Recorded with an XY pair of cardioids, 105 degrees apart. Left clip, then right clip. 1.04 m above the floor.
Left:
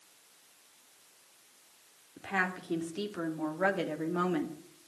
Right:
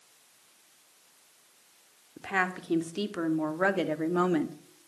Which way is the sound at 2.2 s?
30° right.